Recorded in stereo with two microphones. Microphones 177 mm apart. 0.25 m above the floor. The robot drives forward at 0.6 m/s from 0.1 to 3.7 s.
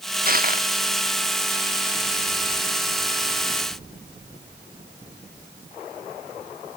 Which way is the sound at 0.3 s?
50° right (ahead or behind).